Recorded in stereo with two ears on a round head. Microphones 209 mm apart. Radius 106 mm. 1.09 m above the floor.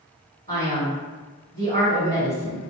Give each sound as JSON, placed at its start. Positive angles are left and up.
{"t": 0.5, "sound": "a man speaking", "side_deg": -40, "distance_m": 1.5}